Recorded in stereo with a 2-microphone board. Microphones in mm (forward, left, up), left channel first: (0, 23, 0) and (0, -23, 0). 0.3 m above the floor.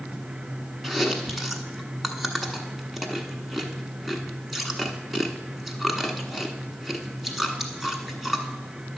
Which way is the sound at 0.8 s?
Centre (ahead or behind).